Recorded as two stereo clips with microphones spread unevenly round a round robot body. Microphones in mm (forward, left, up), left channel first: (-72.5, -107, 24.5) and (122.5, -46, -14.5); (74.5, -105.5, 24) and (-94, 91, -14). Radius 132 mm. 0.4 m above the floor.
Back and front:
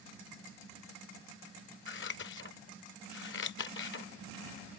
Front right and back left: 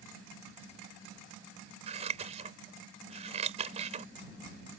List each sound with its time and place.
1.9 s scissors: straight behind